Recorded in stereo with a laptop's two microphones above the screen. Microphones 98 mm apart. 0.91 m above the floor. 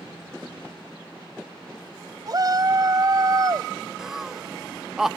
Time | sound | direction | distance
2.3 | a shout | 45° right (ahead or behind) | ?
4.0 | laughter | 5° right (ahead or behind) | ?